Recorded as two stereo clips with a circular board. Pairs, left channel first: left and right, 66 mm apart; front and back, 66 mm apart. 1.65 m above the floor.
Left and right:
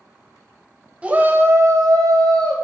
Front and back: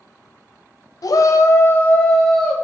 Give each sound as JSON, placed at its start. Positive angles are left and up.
{"t": 1.0, "sound": "a shout", "azimuth_deg": -15, "distance_m": 0.6}